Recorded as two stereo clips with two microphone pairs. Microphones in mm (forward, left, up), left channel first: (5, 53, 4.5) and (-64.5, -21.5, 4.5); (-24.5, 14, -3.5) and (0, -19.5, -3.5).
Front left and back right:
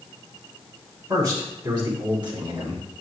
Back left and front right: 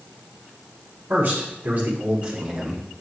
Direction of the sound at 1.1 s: 90° right.